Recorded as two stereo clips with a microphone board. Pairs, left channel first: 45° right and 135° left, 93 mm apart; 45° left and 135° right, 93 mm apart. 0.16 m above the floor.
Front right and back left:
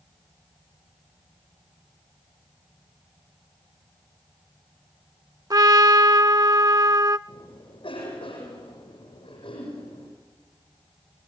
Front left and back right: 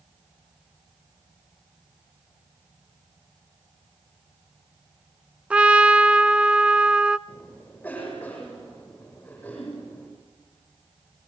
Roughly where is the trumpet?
Behind left.